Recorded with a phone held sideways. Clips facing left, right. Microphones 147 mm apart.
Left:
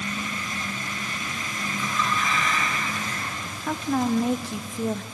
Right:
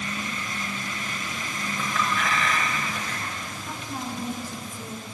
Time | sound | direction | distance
1.8 | a clink | 85° right | 5.5 m
3.7 | a woman speaking | 85° left | 1.0 m